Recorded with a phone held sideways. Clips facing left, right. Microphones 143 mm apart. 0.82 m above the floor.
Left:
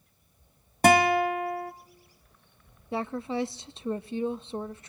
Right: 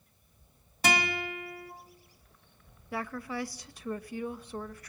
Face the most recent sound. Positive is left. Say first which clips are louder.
# left 5 dB
turn(degrees=25)  # may be behind; listen again after turning